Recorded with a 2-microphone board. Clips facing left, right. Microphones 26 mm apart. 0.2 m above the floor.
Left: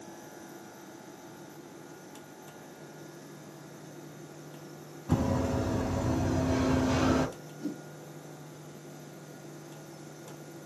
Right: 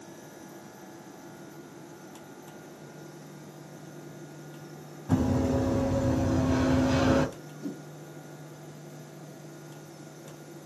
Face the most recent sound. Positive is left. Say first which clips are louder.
# left 1 dB
turn(degrees=15)  # may be behind; listen again after turning